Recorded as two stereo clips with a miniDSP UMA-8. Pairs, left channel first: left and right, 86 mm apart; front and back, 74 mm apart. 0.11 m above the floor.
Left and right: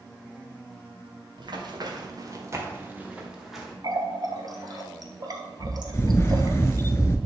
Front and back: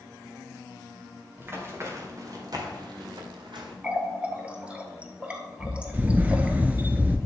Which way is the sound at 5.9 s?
125° left.